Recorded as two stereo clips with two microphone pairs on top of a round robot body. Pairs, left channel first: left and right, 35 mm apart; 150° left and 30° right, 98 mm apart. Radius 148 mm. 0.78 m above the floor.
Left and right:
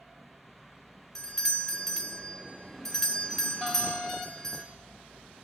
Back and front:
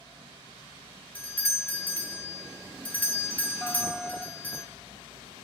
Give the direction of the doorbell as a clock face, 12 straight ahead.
6 o'clock.